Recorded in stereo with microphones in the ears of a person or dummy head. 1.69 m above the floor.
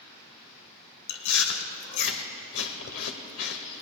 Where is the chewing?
70° left (ahead or behind), 1.0 m.